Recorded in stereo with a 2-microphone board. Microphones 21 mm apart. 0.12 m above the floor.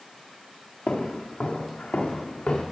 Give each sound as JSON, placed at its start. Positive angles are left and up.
{"t": 0.9, "sound": "footsteps", "side_deg": 70, "distance_m": 2.0}